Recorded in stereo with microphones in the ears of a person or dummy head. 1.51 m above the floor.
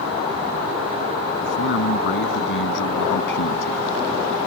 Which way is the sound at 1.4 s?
60° left (ahead or behind).